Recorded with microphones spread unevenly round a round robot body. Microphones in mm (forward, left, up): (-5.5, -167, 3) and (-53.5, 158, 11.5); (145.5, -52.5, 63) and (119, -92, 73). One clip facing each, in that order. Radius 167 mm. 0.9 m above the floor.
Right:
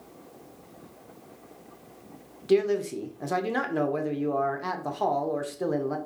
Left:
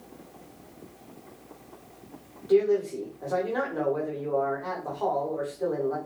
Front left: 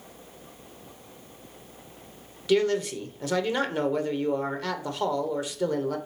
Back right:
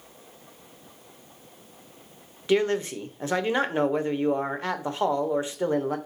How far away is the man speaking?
About 0.9 m.